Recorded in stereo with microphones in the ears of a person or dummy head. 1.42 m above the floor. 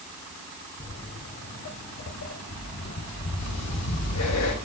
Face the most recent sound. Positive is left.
turn(degrees=80)